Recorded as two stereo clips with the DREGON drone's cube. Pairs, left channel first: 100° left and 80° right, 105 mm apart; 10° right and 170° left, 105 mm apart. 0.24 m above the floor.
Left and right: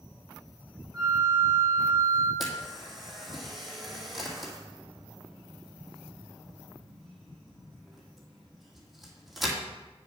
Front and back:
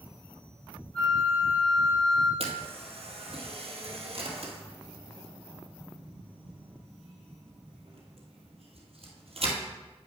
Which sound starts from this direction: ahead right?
A flute, at 0.9 s.